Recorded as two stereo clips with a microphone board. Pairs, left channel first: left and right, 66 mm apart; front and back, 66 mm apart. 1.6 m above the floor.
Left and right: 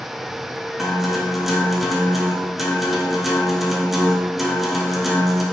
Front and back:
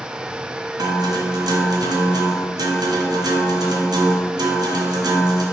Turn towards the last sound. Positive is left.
turn(degrees=-175)